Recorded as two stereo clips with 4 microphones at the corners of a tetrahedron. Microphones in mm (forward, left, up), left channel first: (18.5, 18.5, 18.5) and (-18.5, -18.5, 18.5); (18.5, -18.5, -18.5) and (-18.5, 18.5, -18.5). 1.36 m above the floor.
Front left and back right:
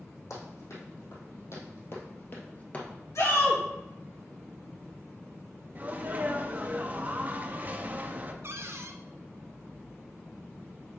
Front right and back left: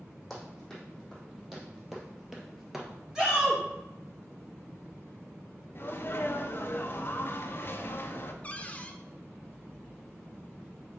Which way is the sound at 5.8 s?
80° right.